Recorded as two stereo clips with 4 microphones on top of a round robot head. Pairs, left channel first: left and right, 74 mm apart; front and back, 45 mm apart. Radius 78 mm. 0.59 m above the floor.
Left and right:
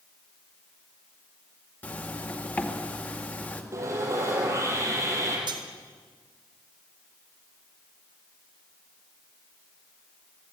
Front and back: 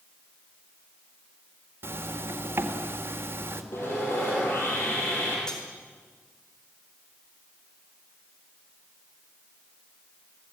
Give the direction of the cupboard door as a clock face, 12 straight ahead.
I don't hear a cupboard door.